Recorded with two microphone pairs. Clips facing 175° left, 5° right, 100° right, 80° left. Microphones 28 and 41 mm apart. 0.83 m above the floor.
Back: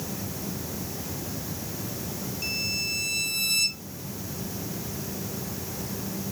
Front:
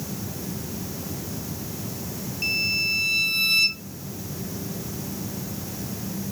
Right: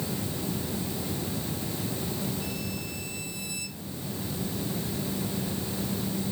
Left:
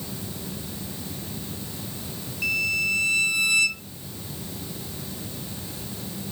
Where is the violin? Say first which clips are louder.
Front 7 dB, left 11 dB; 55° left.